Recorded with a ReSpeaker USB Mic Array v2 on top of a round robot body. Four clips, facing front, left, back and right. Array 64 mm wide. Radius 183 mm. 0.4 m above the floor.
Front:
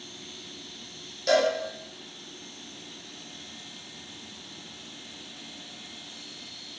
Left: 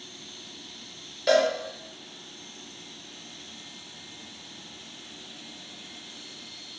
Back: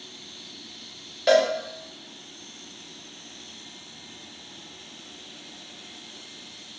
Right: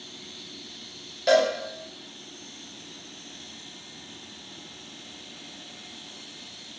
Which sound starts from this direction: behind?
A cowbell, at 1.3 s.